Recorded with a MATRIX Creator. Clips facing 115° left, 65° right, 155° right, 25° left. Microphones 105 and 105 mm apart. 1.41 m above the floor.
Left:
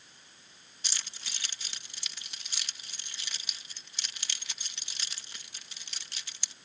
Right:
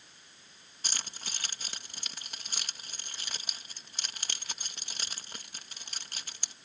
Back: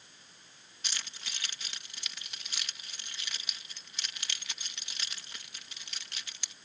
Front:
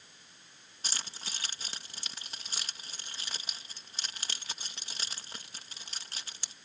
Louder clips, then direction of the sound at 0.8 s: Right 3 dB, front 2 dB; 30° right.